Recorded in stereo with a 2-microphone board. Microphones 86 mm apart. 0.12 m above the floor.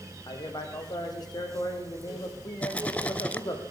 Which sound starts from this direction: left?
A man speaking, at 0.3 s.